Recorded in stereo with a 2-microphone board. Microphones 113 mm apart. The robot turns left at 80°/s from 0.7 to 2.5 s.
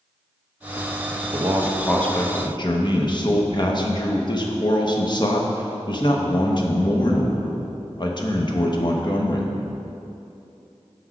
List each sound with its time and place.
1.3 s a man speaking: 135° right, 0.9 m; by 9.5 s 130° left, 0.9 m